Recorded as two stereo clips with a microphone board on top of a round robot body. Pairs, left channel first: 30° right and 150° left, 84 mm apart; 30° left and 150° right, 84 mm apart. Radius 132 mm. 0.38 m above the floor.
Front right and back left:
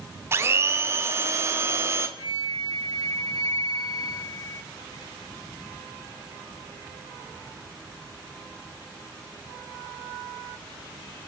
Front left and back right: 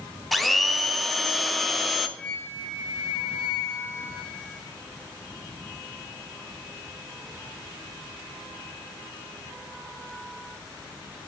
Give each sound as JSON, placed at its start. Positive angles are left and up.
{"t": 0.3, "sound": "a blender", "azimuth_deg": 120, "distance_m": 0.7}
{"t": 2.2, "sound": "a flute", "azimuth_deg": -50, "distance_m": 2.0}